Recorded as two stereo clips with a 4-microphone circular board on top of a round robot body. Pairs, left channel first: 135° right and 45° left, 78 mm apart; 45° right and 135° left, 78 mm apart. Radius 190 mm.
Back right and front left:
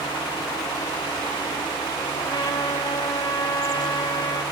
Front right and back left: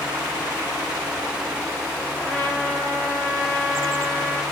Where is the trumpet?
115° right, 0.5 m.